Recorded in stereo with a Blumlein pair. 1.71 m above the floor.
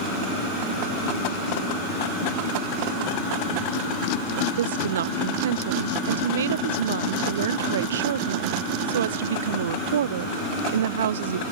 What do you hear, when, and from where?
4.6 s a woman speaking: 60° right